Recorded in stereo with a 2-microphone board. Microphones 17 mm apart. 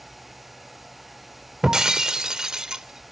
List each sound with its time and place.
1.6 s breaking glass: 45° right (ahead or behind), 0.9 m